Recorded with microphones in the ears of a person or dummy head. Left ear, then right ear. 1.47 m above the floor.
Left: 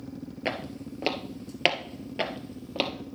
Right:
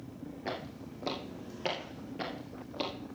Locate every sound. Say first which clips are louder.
0.5 s footsteps: left 7 dB; 45° left (ahead or behind), 2.0 m; by 2.9 s 40° left (ahead or behind), 2.5 m